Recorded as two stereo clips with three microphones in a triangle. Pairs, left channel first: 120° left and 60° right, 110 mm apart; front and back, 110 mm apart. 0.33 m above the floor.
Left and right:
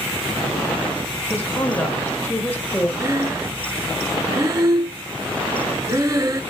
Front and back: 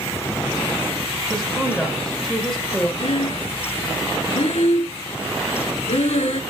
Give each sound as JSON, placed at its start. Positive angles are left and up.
{"t": 1.3, "sound": "a woman speaking", "azimuth_deg": 80, "distance_m": 1.4}
{"t": 3.0, "sound": "breathing", "azimuth_deg": -5, "distance_m": 0.5}